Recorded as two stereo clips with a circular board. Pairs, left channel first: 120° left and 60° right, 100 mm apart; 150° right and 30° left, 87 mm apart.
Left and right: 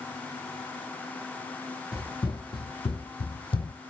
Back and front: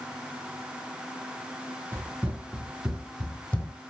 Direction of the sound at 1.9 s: 80° left.